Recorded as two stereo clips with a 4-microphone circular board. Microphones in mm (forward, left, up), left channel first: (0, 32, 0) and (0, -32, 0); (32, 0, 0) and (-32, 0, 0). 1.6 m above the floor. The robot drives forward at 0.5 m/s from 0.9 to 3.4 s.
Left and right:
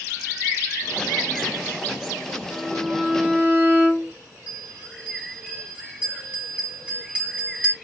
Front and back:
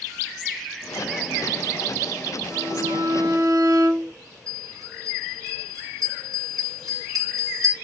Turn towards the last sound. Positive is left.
turn(degrees=-160)